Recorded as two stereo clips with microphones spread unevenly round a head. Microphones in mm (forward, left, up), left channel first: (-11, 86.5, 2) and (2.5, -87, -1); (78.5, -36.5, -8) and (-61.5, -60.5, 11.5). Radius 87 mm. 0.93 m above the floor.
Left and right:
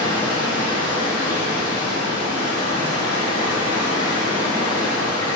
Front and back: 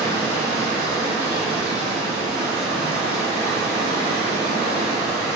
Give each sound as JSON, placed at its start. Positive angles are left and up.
{"t": 0.0, "sound": "running water", "azimuth_deg": 155, "distance_m": 1.2}